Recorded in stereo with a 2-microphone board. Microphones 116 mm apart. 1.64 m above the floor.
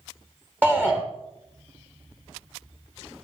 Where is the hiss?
I don't hear a hiss.